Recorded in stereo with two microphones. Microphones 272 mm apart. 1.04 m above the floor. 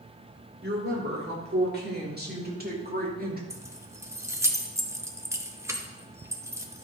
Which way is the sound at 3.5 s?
10° right (ahead or behind).